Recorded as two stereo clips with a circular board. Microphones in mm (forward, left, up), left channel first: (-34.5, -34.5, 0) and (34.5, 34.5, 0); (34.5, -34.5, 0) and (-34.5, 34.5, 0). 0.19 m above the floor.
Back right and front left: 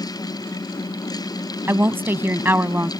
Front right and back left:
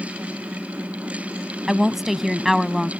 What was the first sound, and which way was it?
A woman speaking, 55° left.